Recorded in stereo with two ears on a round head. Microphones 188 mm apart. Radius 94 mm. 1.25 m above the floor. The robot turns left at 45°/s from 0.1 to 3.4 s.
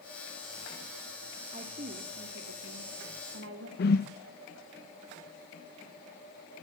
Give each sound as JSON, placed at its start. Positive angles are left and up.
{"t": 1.5, "sound": "a woman speaking", "azimuth_deg": -30, "distance_m": 3.0}
{"t": 3.8, "sound": "a whoosh", "side_deg": 50, "distance_m": 0.7}